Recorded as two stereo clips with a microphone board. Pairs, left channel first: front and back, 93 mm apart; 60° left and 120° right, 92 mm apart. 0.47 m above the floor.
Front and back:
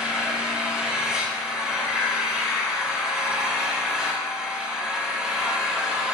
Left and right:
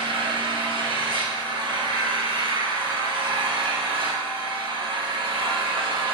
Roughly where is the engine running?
Right.